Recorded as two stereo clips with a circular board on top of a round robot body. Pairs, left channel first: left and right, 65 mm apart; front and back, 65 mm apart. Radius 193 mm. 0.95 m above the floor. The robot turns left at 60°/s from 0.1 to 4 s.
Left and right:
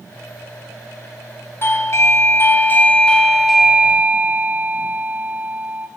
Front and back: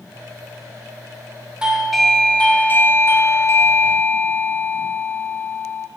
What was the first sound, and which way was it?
A doorbell, 110° left.